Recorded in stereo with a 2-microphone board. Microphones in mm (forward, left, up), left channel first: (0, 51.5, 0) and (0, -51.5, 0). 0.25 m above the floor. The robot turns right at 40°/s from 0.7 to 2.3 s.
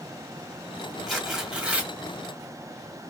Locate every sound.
1.1 s tearing paper: centre (ahead or behind), 1.4 m; by 1.9 s 15° right (ahead or behind), 1.4 m